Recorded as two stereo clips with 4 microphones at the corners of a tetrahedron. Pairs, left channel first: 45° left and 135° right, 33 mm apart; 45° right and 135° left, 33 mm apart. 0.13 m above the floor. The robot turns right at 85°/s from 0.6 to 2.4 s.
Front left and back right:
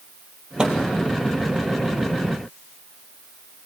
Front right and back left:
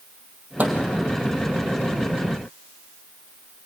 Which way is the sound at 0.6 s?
160° left.